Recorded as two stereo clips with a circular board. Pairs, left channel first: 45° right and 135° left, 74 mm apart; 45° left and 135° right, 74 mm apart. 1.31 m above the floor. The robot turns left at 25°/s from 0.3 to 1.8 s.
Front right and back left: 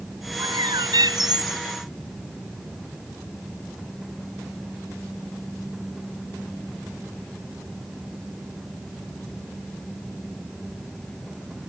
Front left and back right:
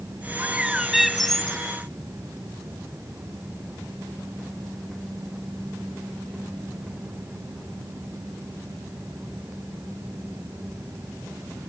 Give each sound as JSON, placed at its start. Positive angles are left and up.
{"t": 0.4, "sound": "a bird", "azimuth_deg": 155}